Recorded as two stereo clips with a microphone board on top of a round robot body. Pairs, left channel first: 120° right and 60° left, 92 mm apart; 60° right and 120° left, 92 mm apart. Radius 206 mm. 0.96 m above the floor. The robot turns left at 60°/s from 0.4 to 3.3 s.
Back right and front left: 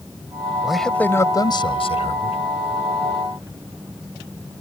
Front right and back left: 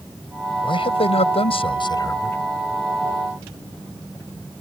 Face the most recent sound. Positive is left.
turn(degrees=175)